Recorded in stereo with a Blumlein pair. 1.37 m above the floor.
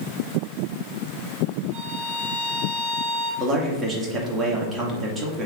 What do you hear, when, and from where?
1.7 s a violin: 55° right, 3.5 m
3.4 s a man speaking: 20° right, 2.5 m